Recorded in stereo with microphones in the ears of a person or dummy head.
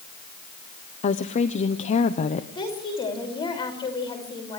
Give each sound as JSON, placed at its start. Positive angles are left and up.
{"t": 1.0, "sound": "a woman speaking", "side_deg": 40, "distance_m": 0.9}
{"t": 2.5, "sound": "a woman speaking", "side_deg": 30, "distance_m": 6.5}